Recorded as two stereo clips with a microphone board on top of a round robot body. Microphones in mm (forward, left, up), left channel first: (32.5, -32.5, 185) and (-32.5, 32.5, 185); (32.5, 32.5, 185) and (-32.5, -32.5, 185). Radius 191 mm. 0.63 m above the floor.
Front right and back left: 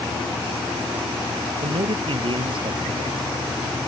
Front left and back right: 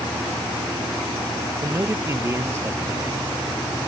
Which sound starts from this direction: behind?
A man speaking, at 1.6 s.